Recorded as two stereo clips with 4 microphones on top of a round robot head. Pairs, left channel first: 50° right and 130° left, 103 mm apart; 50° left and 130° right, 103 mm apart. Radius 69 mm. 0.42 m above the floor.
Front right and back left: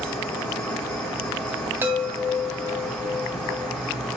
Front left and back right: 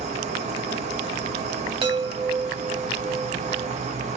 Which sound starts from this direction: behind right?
An insect, at 0.0 s.